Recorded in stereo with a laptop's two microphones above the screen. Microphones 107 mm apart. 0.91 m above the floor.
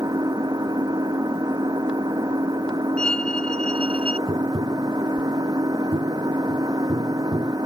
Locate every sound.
0.0 s an engine running: 35° right (ahead or behind)
3.0 s a violin: 10° left (ahead or behind)
4.3 s tapping: 55° right (ahead or behind)